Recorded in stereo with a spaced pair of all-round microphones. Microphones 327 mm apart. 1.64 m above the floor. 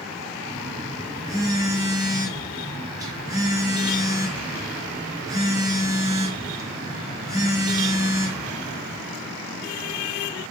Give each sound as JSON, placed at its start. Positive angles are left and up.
{"t": 0.5, "sound": "a phone buzzing", "side_deg": -10, "distance_m": 0.7}